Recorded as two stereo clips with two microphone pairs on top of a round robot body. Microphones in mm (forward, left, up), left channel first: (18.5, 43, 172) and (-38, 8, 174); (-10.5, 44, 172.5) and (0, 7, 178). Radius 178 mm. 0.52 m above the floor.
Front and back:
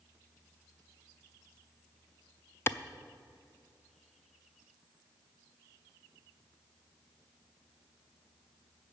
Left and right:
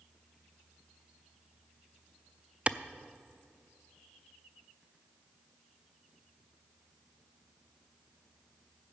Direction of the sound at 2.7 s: 10° right.